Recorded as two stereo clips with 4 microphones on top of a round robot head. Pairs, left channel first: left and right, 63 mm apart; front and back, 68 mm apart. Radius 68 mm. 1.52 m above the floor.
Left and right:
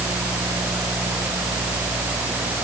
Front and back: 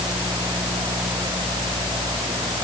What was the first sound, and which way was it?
Only background noise.